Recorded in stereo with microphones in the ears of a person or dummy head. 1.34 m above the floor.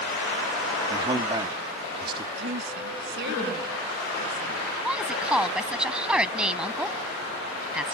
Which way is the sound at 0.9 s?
30° right (ahead or behind).